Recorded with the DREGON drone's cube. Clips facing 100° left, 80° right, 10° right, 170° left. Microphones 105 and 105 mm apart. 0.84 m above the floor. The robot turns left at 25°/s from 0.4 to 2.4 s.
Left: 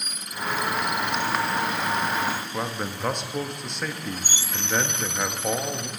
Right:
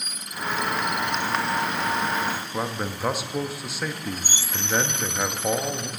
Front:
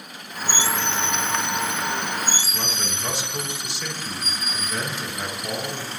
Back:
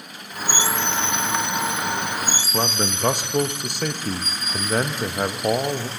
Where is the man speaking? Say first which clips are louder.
Right 1 dB, back 7 dB; 160° right, 0.8 m.